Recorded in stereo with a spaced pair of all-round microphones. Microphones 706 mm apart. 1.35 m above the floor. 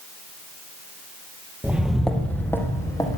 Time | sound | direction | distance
1.6 | footsteps | 5° right (ahead or behind) | 1.4 m